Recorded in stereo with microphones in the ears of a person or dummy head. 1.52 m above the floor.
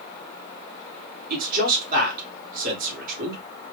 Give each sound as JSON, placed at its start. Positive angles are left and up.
{"t": 1.3, "sound": "a man speaking", "side_deg": -55, "distance_m": 1.9}